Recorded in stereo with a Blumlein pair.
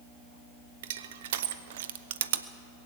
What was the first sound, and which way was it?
Crushing, 55° right.